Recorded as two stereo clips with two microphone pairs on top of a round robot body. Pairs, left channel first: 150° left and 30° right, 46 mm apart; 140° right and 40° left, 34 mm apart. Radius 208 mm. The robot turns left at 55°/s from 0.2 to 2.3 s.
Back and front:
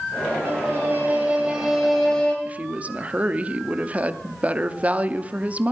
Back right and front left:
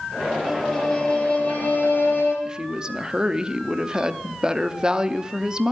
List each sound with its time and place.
0.5 s a violin: 40° right, 2.5 m; by 2.4 s 140° right, 2.5 m
2.5 s a woman speaking: 5° left, 0.9 m